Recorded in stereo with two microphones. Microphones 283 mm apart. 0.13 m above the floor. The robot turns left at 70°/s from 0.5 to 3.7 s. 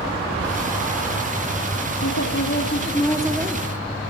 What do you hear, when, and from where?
2.0 s a woman speaking: 85° left, 4.5 m; by 3.7 s 30° right, 4.5 m